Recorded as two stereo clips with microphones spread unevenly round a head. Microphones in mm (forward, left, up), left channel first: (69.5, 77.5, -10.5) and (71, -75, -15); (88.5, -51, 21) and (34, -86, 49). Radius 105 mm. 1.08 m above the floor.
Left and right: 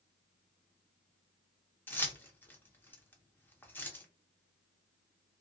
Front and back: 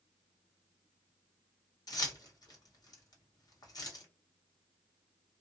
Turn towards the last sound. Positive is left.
turn(degrees=15)